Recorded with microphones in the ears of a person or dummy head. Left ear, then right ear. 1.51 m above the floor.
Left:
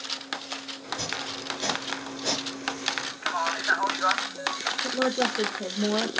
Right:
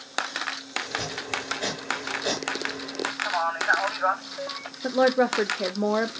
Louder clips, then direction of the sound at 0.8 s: Right 1 dB; 5° right (ahead or behind).